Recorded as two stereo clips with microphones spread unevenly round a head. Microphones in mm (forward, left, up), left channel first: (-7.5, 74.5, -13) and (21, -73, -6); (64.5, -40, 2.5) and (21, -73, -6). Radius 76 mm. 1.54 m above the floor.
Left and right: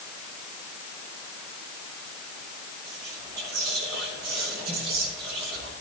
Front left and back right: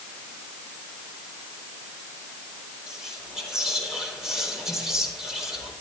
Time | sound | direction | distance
2.9 | whispering | 65° right | 4.5 m